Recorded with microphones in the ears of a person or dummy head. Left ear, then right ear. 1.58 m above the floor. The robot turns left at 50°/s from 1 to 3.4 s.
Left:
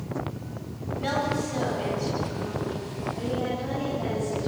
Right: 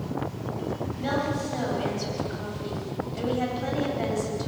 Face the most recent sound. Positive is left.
turn(degrees=-95)